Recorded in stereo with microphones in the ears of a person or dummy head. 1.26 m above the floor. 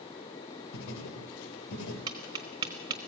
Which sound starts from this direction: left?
Writing, at 0.7 s.